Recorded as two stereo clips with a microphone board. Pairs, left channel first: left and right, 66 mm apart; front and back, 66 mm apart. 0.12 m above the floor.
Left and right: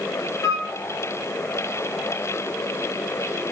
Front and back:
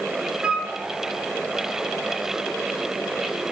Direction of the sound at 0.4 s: 110° left.